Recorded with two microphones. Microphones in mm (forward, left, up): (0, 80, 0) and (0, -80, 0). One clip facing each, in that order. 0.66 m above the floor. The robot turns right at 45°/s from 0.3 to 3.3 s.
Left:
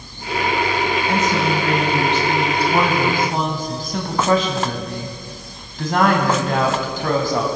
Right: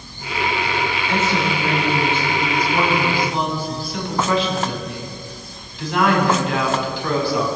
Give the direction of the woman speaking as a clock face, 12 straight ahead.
11 o'clock.